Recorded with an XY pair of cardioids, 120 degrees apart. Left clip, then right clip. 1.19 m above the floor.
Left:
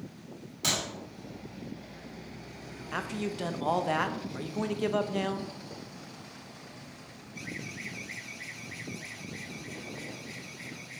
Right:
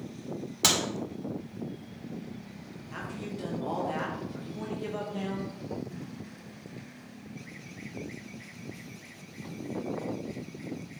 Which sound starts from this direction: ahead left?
A man speaking, at 2.9 s.